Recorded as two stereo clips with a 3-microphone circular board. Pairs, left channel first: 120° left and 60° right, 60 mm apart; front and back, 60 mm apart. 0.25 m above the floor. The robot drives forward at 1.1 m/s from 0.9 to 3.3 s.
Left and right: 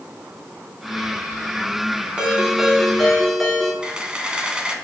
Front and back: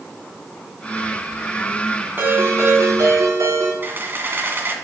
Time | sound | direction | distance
2.2 | a ringtone | 135° right | 1.7 m
3.8 | a camera shutter | 135° right | 1.6 m